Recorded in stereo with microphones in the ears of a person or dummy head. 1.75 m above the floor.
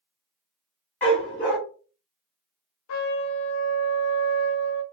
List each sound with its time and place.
1.0 s a dog barking: 10° left (ahead or behind), 1.1 m
2.9 s a trumpet: 80° left, 0.7 m